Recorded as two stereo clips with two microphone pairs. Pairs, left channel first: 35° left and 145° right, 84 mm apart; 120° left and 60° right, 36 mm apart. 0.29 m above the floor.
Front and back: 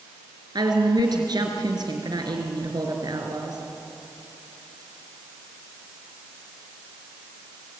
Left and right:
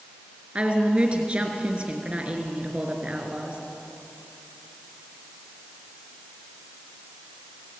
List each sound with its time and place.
0.6 s a woman speaking: 120° right, 3.5 m